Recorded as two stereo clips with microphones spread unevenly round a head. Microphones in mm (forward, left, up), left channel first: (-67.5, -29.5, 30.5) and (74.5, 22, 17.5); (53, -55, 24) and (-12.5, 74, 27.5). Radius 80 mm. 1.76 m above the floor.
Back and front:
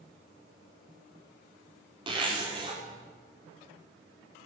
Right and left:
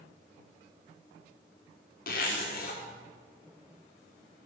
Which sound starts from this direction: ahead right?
A zipper, at 2.1 s.